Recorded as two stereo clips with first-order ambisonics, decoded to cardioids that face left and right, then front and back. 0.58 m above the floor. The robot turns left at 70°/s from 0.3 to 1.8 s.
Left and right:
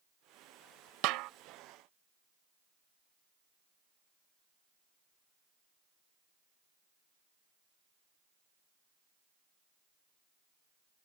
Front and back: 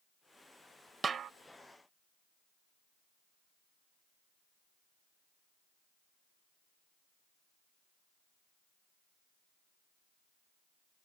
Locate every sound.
1.0 s a snare drum: 105° right; by 1.3 s 125° right